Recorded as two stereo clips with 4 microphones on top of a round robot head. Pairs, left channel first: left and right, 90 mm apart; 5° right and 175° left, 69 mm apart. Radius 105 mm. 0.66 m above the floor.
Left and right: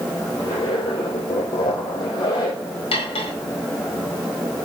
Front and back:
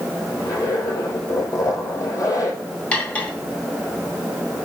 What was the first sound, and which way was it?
A zipper, 40° left.